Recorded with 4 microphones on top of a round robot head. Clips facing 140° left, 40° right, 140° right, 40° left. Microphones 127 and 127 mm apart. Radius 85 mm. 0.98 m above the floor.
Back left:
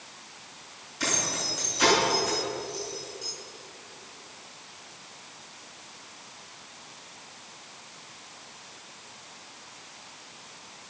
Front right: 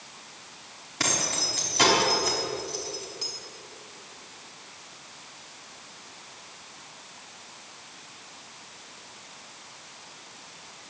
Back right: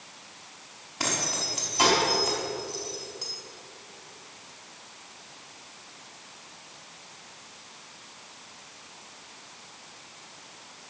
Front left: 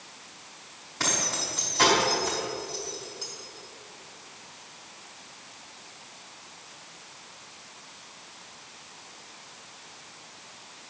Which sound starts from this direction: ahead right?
Keys jangling, at 1.0 s.